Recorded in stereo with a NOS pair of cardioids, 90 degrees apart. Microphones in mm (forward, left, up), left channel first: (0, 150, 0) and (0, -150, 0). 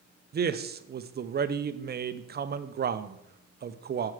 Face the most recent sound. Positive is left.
turn(degrees=-35)